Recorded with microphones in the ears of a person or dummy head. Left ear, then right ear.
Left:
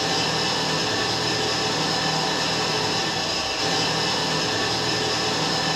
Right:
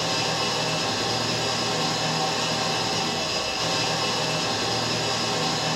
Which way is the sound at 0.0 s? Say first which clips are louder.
Left 2 dB; 10° right (ahead or behind).